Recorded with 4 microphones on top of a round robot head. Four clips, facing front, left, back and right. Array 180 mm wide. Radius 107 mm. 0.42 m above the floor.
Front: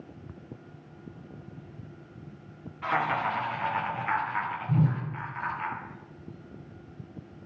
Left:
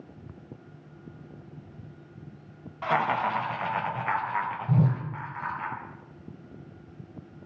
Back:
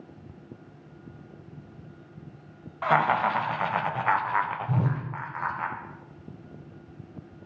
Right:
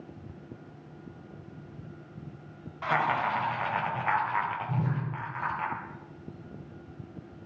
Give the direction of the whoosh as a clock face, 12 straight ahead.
8 o'clock.